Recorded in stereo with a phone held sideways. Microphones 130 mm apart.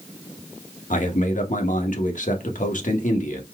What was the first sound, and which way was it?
A man speaking, 75° left (ahead or behind).